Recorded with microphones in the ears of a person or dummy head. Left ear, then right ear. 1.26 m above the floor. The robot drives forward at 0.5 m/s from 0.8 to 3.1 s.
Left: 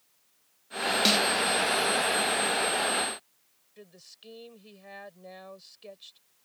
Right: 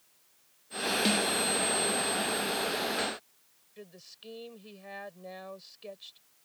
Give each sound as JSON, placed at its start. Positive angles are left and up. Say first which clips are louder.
{"t": 1.1, "sound": "a snare drum", "louder": "left 6 dB", "side_deg": 35}
{"t": 3.8, "sound": "a woman speaking", "louder": "right 1 dB", "side_deg": 5}